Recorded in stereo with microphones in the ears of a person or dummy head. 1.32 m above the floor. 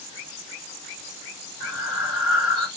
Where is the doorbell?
No doorbell in this recording.